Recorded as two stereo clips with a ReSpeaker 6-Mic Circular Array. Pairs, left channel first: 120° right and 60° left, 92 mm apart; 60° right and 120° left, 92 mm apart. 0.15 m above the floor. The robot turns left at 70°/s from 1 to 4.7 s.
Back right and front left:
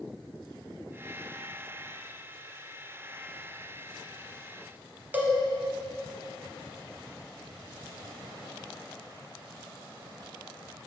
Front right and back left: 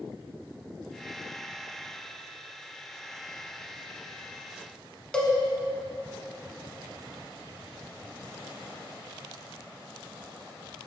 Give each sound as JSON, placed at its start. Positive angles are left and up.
{"t": 5.1, "sound": "a cowbell", "azimuth_deg": 10, "distance_m": 1.1}